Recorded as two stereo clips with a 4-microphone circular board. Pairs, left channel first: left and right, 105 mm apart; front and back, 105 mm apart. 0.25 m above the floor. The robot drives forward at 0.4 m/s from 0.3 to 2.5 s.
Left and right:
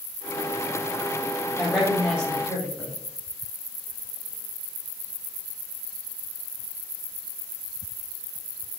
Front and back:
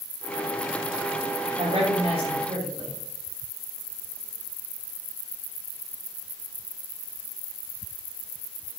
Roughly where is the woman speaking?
Behind.